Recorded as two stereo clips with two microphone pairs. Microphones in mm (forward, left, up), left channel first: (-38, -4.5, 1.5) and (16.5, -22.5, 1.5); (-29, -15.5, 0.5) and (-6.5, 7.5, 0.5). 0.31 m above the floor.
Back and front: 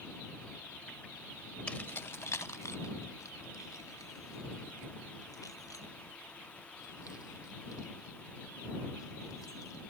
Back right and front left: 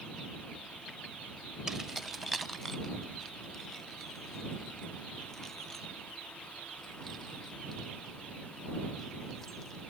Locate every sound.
1.7 s keys jangling: 115° left; by 9.8 s 145° left